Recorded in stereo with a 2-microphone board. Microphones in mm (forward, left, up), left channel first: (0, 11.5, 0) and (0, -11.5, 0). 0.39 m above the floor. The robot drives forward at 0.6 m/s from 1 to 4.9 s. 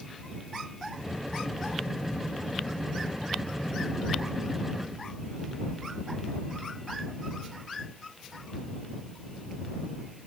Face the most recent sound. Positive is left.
No sound to turn to.